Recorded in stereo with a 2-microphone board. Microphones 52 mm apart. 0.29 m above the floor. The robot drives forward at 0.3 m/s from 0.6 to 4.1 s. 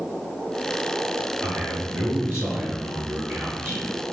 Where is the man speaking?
25° right (ahead or behind), 1.4 m; by 4.1 s 20° right (ahead or behind), 1.9 m.